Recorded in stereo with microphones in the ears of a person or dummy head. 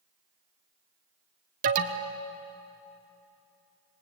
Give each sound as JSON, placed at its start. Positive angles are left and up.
{"t": 1.6, "sound": "an alarm", "side_deg": -35, "distance_m": 1.1}